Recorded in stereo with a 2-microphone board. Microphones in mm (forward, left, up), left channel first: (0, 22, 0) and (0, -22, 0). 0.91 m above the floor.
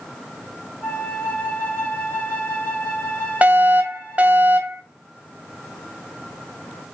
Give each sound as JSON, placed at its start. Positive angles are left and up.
{"t": 0.8, "sound": "a flute", "side_deg": 30, "distance_m": 5.0}
{"t": 3.4, "sound": "a fire alarm", "side_deg": -25, "distance_m": 1.3}